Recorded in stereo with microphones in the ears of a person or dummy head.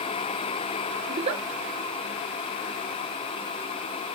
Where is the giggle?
30° right (ahead or behind), 1.9 m.